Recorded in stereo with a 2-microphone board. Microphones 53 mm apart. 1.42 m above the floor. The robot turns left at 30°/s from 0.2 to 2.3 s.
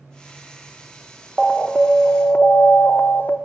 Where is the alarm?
10° left (ahead or behind), 0.6 m; by 3.4 s 35° left (ahead or behind), 0.6 m.